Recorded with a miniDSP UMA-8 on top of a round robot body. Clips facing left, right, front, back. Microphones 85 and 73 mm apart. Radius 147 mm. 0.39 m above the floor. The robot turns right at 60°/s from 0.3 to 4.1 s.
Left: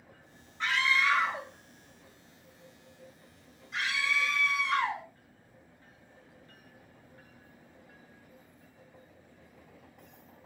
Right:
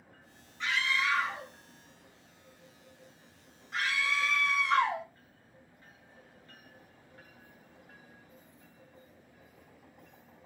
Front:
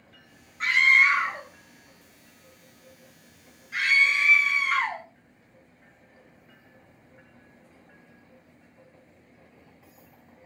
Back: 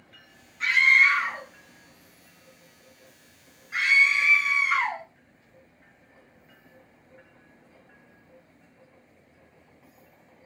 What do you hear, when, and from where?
0.6 s a scream: 50° left, 3 m; by 5.0 s 100° right, 3 m